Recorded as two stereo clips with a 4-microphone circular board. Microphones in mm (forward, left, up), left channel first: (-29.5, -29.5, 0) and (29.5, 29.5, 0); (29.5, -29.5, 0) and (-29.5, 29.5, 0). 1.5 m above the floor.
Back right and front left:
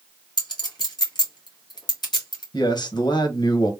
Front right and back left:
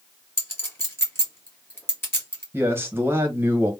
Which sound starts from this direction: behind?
A man speaking, at 2.5 s.